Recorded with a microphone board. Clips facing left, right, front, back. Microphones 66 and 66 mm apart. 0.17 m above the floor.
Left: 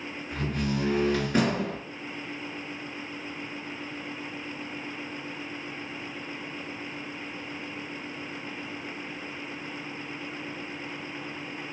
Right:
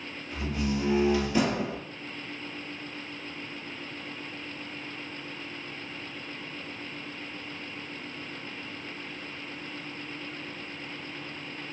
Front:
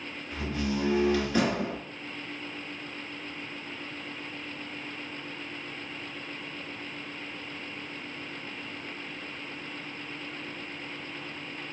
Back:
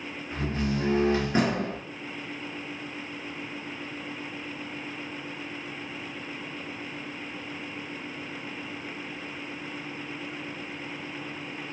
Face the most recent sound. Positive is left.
turn(degrees=125)